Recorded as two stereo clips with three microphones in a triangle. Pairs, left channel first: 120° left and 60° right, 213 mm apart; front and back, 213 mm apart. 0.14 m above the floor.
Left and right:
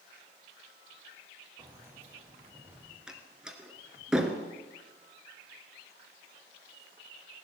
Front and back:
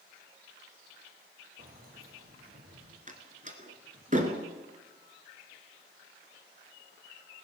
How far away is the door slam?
About 1.7 m.